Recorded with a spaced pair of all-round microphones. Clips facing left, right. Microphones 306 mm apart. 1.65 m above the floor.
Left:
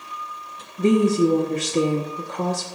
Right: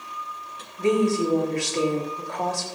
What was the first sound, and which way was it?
A woman speaking, 45° left (ahead or behind).